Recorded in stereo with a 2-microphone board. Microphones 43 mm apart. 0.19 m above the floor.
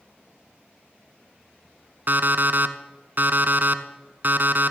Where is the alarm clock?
50° right (ahead or behind), 0.7 m.